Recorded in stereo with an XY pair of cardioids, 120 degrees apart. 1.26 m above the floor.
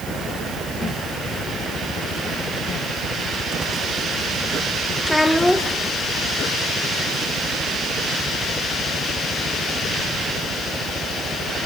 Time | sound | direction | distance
5.0 | a child speaking | 5° left | 2 m